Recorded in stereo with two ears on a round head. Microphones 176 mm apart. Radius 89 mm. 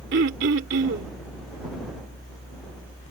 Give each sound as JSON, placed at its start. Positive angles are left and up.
{"t": 0.1, "sound": "throat clearing", "side_deg": -60}